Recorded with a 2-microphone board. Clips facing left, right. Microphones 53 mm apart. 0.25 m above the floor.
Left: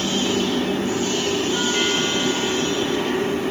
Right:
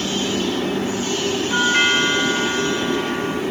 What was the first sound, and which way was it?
A doorbell, 35° right (ahead or behind).